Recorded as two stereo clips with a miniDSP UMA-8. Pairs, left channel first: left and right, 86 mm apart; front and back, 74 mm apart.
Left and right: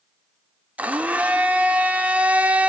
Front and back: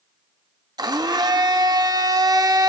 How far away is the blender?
About 1.6 m.